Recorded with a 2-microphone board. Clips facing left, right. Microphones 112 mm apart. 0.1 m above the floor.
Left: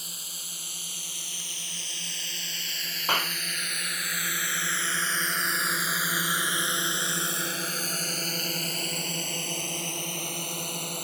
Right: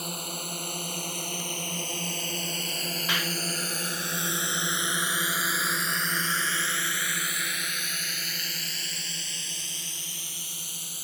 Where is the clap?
45° left (ahead or behind).